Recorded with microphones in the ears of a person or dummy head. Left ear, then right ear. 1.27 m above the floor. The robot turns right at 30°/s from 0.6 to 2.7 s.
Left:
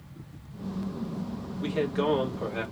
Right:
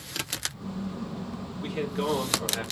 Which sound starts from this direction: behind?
A man speaking, at 1.6 s.